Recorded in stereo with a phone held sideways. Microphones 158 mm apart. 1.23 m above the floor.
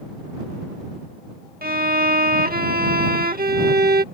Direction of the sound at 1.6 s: 65° right (ahead or behind).